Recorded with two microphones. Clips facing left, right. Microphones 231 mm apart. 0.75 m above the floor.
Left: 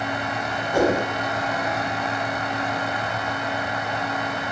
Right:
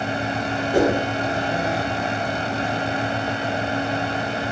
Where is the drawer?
I don't hear a drawer.